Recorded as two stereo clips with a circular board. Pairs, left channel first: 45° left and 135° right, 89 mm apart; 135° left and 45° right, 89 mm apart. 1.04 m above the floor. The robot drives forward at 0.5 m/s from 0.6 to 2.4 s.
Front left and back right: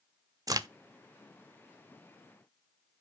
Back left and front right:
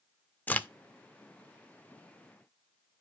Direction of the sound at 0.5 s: 160° right.